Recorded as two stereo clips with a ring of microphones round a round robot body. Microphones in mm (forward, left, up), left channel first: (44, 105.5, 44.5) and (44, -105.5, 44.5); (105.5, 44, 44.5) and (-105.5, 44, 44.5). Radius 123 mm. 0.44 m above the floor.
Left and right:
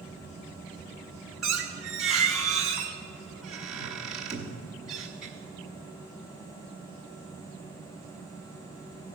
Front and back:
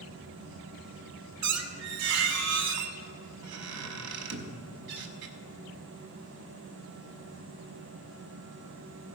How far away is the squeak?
About 0.9 m.